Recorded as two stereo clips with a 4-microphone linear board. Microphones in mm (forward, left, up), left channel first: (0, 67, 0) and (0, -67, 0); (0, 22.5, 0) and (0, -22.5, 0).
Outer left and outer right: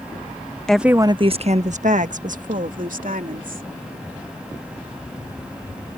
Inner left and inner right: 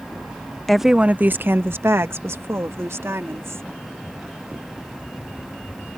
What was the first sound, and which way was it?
A woman speaking, 5° left (ahead or behind).